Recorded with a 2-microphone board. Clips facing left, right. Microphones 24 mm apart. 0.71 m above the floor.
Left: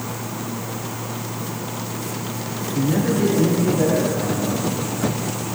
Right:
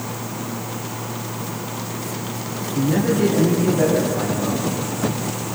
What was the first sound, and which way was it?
A man speaking, 5° right (ahead or behind).